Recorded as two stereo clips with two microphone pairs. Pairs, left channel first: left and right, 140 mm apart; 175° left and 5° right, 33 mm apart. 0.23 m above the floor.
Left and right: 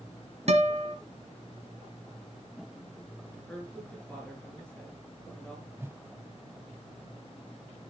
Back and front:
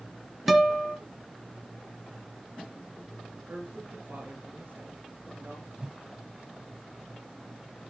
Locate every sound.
0.5 s a guitar: 90° right, 1.6 m
3.5 s a woman speaking: 10° left, 4.5 m
5.8 s a whoosh: 35° right, 0.7 m